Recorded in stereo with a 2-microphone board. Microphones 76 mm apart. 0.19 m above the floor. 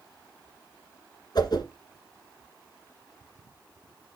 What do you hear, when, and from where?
1.4 s a whoosh: 60° left (ahead or behind), 1.7 m